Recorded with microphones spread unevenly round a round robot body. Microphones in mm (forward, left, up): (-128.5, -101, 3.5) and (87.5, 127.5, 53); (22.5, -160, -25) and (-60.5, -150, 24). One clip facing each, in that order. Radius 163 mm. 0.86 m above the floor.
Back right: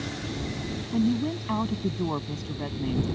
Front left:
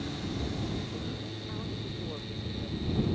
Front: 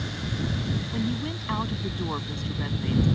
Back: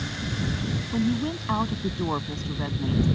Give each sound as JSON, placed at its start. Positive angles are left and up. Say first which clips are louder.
{"t": 0.9, "sound": "a woman speaking", "louder": "back right 14 dB, back 7 dB", "azimuth_deg": -130}